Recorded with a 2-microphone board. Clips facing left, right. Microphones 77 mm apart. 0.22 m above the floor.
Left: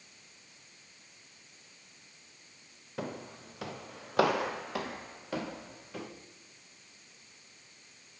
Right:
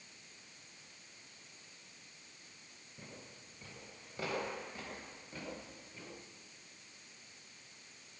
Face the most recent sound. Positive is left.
turn(degrees=85)